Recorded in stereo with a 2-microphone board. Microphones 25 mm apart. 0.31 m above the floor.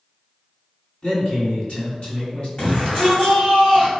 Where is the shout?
35° left (ahead or behind), 2.0 m.